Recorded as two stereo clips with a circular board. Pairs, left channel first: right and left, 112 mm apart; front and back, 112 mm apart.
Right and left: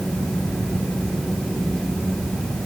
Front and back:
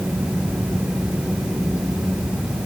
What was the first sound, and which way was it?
Only background noise.